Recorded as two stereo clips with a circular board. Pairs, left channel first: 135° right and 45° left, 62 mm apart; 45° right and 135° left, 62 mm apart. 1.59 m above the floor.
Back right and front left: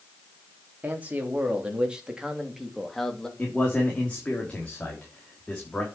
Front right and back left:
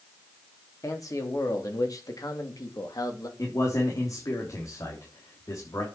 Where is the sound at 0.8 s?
20° right, 3.5 m; by 3.3 s 55° right, 2.5 m.